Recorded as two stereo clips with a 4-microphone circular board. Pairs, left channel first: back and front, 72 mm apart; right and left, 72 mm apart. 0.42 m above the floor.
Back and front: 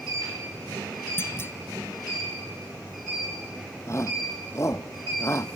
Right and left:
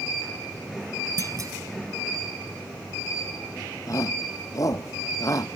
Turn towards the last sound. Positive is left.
turn(degrees=-130)